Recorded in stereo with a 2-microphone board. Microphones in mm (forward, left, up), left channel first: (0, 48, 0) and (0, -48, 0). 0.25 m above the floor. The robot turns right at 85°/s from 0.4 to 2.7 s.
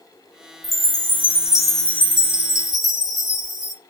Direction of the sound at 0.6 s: 85° right.